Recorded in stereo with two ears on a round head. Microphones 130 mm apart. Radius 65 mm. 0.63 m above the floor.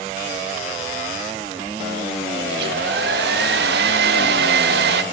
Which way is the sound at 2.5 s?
80° right.